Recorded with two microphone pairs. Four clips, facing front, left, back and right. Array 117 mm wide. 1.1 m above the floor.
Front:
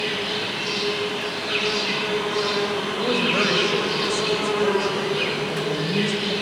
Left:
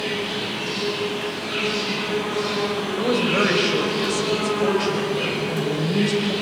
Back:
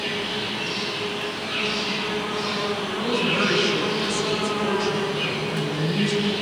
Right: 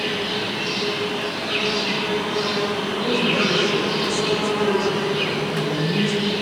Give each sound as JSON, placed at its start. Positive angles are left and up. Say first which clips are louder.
{"t": 0.0, "sound": "an insect", "louder": "right 1 dB, front 2 dB", "azimuth_deg": -5, "distance_m": 6.0}
{"t": 3.0, "sound": "a woman speaking", "louder": "left 2 dB, front 1 dB", "azimuth_deg": 60, "distance_m": 6.0}